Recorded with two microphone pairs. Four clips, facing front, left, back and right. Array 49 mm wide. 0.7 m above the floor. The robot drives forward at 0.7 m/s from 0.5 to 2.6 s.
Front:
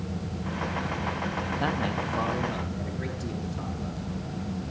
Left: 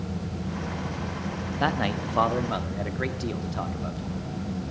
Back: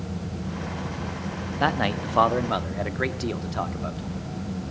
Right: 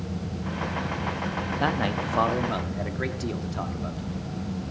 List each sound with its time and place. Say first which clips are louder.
1.6 s a man speaking: left 1 dB, back 7 dB; 175° right, 0.5 m; by 4.0 s straight behind, 1.0 m